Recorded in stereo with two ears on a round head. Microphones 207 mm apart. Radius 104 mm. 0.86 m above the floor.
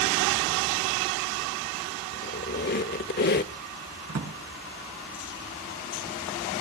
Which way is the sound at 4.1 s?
65° right (ahead or behind).